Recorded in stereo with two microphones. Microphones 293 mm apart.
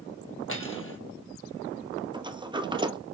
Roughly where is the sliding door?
Centre.